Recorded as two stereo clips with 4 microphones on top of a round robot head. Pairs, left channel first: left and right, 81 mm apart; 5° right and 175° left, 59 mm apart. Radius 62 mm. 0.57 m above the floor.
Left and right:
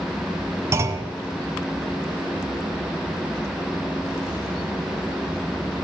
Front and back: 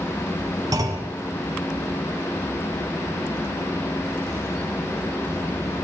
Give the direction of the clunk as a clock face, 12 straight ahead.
5 o'clock.